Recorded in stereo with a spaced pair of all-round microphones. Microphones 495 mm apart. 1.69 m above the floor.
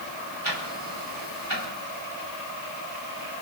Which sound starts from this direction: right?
Ticking, at 0.4 s.